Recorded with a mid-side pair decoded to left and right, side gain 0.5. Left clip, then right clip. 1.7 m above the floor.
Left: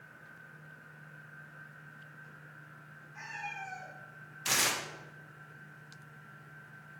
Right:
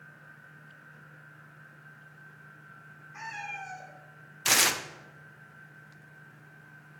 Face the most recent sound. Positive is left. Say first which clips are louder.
# right 6 dB
turn(degrees=-45)